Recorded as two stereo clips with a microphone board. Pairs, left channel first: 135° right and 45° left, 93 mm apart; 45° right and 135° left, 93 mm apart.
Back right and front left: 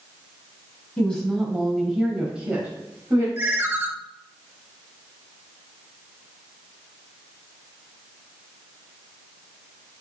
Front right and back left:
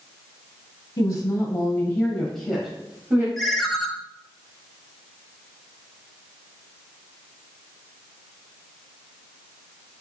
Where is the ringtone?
40° left, 0.5 m.